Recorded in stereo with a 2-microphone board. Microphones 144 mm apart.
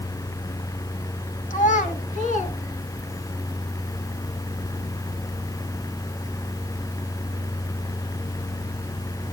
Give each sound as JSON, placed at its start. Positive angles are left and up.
{"t": 1.5, "sound": "a child speaking", "side_deg": 60, "distance_m": 2.5}